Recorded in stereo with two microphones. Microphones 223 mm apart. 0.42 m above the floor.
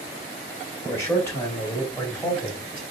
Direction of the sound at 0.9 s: 10° left (ahead or behind).